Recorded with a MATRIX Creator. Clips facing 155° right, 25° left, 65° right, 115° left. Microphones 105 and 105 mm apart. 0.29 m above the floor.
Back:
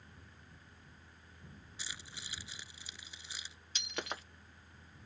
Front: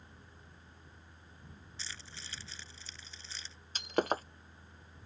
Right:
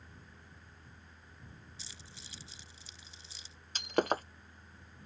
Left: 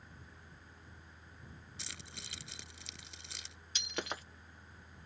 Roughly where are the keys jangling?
Behind left.